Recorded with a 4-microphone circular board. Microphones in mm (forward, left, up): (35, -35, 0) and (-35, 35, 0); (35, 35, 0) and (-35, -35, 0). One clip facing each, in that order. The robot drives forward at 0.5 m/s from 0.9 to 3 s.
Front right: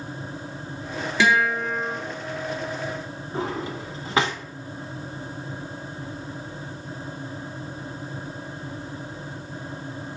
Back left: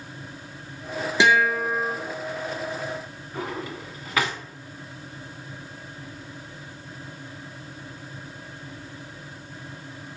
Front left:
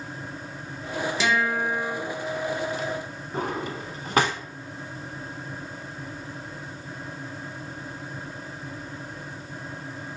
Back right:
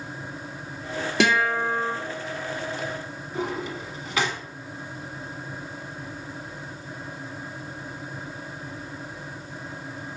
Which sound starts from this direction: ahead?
A drawer, at 3.3 s.